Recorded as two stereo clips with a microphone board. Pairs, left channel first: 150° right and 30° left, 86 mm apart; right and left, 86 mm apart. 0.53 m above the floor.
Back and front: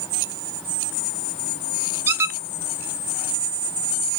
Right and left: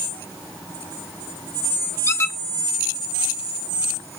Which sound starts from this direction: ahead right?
A squeak, at 2.1 s.